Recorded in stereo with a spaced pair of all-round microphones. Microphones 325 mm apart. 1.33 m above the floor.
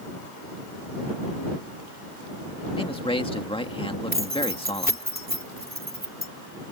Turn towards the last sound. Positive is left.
turn(degrees=-25)  # may be behind; listen again after turning